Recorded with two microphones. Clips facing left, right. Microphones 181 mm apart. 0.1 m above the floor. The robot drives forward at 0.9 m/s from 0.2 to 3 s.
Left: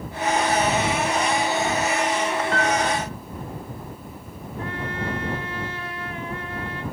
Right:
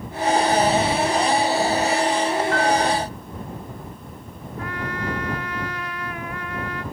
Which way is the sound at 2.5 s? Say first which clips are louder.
Right 3 dB; 30° left (ahead or behind).